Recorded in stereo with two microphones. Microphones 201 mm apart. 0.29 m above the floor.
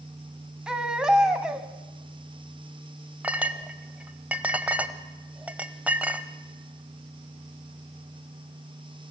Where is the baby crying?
5° right (ahead or behind), 1.3 m.